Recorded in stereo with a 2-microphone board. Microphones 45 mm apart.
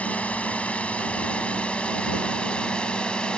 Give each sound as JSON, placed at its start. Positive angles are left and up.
{"t": 0.0, "sound": "a drone", "side_deg": 35}